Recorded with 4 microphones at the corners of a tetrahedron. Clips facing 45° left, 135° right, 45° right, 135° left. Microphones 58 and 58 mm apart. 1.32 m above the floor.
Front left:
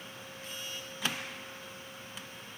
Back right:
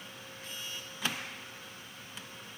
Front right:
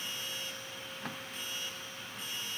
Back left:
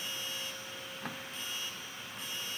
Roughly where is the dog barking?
No dog barking in this recording.